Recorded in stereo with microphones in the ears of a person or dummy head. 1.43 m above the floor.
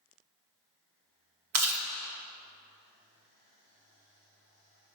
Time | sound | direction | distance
1.5 | chewing | 65° right (ahead or behind) | 1.2 m